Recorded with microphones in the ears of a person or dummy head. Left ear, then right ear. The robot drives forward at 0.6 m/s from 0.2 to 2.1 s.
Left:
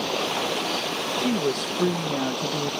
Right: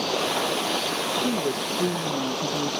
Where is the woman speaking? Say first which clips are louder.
Left 1 dB; 65° left (ahead or behind); by 2.7 s 55° left (ahead or behind).